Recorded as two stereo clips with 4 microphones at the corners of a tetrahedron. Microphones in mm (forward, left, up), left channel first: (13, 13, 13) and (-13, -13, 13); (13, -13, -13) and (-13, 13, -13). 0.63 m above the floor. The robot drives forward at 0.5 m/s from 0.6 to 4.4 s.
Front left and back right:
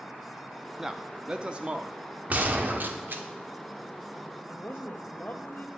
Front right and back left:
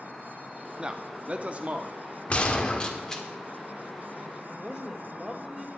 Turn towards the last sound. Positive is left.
turn(degrees=65)